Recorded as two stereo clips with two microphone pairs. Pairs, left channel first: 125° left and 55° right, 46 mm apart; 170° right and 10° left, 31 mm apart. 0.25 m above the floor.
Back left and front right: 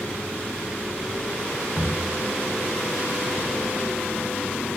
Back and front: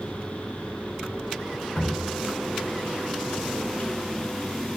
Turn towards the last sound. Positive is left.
turn(degrees=-150)